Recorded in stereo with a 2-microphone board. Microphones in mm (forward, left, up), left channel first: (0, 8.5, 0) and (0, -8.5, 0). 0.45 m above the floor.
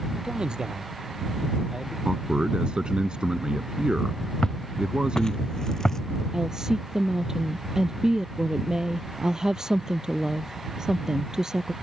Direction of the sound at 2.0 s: 80° right.